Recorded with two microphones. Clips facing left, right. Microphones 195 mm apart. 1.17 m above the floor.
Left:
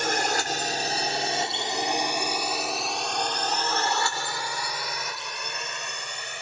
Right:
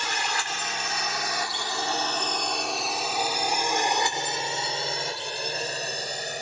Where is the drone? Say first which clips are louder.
Left 6 dB; 50° left (ahead or behind); by 6.4 s 40° right (ahead or behind).